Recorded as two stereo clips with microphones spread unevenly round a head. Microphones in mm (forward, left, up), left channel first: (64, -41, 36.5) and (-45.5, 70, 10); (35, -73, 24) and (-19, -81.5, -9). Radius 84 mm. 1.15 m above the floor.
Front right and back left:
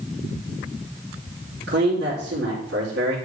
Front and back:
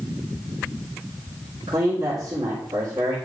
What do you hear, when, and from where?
1.7 s a man speaking: 140° left, 3.5 m